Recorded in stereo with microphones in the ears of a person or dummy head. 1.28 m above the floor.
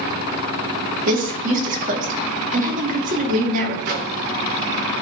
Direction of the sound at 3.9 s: 55° right (ahead or behind).